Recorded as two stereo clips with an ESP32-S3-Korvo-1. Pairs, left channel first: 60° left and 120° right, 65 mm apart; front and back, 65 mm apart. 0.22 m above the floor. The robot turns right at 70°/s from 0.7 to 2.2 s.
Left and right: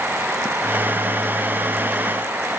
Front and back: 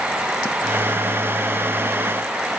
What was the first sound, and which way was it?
Only background noise.